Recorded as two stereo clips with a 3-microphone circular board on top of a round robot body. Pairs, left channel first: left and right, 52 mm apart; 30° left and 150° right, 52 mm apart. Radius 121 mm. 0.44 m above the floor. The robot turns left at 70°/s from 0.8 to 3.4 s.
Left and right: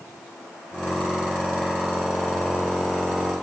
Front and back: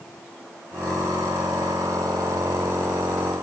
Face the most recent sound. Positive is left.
No sound to turn to.